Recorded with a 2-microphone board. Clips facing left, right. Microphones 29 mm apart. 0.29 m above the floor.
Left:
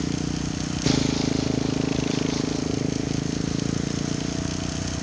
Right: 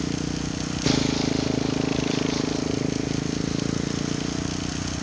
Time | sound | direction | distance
0.0 | a motorcycle | 5° right (ahead or behind) | ?